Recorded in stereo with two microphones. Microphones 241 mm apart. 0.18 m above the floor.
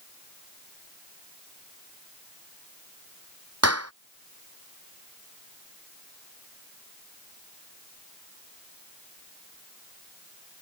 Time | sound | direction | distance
3.6 | a clap | 80° right | ?